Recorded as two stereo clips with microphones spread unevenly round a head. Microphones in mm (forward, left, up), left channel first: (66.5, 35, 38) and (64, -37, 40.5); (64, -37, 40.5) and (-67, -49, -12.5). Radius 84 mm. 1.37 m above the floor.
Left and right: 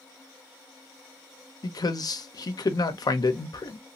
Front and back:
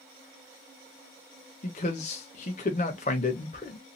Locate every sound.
1.6 s a man speaking: 55° left, 0.7 m